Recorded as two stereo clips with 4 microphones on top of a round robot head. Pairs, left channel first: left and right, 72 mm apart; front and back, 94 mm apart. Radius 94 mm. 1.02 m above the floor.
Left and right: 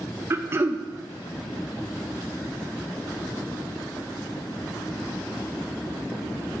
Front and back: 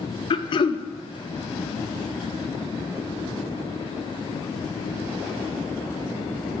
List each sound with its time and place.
0.3 s throat clearing: 35° right, 0.6 m